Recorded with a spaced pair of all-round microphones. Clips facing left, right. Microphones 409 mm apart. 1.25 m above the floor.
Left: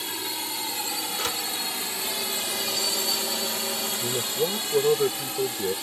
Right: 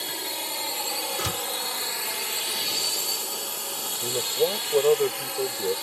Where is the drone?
20° left (ahead or behind); by 5.8 s 40° left (ahead or behind).